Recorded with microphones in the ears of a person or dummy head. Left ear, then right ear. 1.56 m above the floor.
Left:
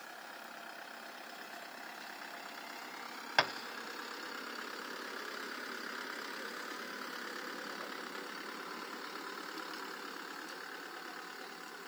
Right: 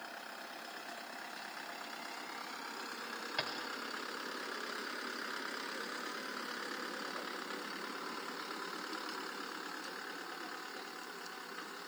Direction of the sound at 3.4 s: 45° left (ahead or behind).